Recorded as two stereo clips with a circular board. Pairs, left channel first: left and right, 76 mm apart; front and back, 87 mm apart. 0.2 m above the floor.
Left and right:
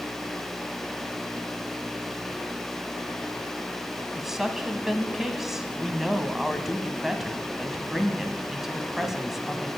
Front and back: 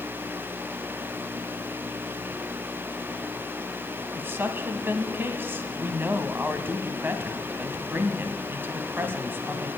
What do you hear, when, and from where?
4.2 s a woman speaking: 165° right, 1.1 m